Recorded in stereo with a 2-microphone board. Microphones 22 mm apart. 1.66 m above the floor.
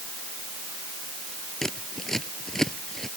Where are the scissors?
25° left (ahead or behind).